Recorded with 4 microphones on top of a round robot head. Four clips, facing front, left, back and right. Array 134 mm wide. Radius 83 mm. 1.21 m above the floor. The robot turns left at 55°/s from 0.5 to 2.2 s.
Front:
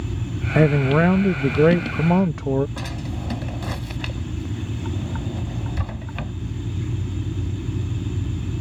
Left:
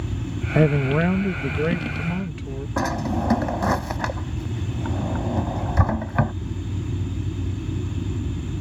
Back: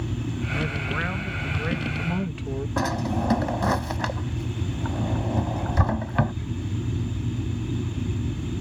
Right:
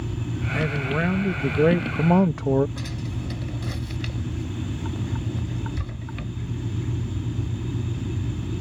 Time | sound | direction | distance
0.6 | a man speaking | 40° left | ?
2.8 | a drawer | 120° left | ?